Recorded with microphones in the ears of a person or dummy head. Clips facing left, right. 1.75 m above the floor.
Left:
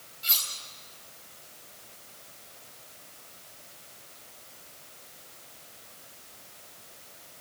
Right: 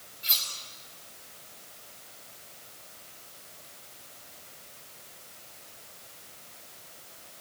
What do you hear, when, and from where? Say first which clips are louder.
0.2 s cutlery clinking: left 1 dB; 5° left (ahead or behind), 5 m